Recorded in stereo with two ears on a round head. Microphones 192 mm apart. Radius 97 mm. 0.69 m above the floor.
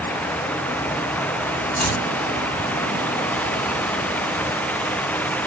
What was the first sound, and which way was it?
Chopping, 10° left (ahead or behind).